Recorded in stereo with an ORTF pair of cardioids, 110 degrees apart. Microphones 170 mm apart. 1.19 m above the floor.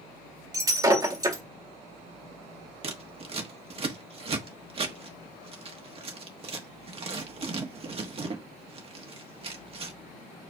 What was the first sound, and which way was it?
Breaking glass, 20° right.